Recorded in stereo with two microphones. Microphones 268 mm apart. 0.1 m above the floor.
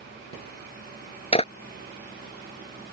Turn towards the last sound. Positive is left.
turn(degrees=20)  # may be behind; listen again after turning